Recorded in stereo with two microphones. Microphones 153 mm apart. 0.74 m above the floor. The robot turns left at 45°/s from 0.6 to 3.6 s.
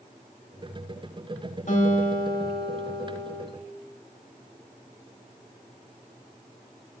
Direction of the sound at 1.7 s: 120° left.